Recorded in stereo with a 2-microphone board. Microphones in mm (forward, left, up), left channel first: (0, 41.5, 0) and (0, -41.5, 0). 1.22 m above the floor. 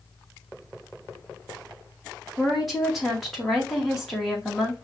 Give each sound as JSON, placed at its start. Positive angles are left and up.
{"t": 2.4, "sound": "a woman speaking", "side_deg": 0, "distance_m": 2.0}